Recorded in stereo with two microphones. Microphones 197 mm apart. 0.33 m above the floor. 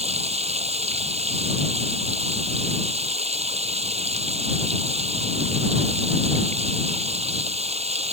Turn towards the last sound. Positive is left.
turn(degrees=-30)  # may be behind; listen again after turning